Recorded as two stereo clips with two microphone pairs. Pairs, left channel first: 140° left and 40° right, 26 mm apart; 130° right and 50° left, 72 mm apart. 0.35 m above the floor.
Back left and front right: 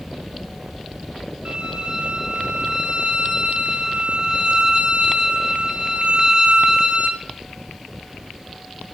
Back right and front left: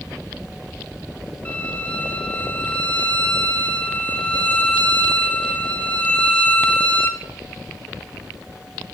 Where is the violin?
65° right, 0.9 m.